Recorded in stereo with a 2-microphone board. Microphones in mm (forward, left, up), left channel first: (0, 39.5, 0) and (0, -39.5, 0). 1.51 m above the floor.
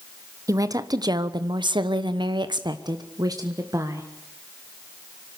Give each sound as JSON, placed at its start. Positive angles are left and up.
{"t": 0.5, "sound": "a woman speaking", "side_deg": -45, "distance_m": 1.2}